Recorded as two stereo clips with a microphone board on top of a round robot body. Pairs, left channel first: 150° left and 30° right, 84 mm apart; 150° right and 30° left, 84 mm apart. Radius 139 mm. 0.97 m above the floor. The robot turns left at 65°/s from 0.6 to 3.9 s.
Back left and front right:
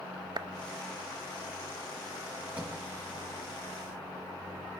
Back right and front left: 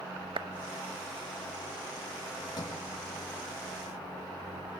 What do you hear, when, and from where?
0.4 s a clap: 10° left, 1.0 m
2.6 s a sliding door: 105° right, 6 m; by 2.8 s 120° right, 6 m